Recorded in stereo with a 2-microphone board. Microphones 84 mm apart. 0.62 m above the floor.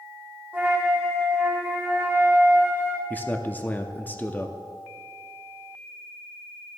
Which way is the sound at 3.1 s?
20° left (ahead or behind).